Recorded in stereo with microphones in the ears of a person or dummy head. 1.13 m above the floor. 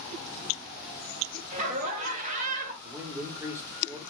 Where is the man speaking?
20° right (ahead or behind), 0.7 m.